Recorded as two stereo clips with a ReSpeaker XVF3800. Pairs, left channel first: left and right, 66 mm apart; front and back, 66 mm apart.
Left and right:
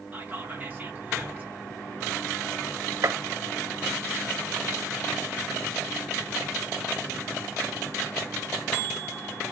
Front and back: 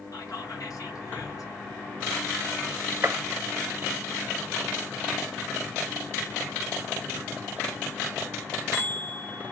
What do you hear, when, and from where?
0.1 s whispering: 25° right, 1.6 m
3.0 s a gunshot: 125° right, 0.5 m